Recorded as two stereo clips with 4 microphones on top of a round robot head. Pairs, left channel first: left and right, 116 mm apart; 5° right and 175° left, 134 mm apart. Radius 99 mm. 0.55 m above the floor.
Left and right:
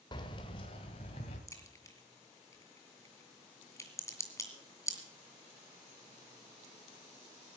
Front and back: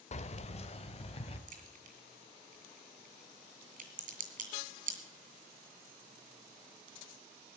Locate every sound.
0.1 s keys jangling: 30° left, 1.2 m; by 1.4 s 40° left, 2.5 m
1.5 s a crack: 155° left, 6 m